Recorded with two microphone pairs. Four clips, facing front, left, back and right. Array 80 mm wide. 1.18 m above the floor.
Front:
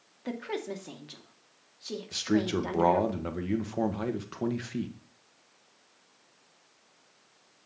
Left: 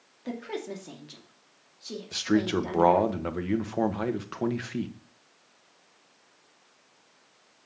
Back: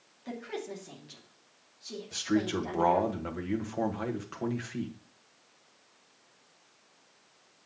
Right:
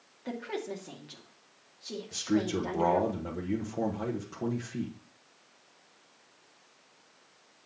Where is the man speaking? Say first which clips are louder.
Left 4 dB, front 2 dB; 85° left, 1.2 m.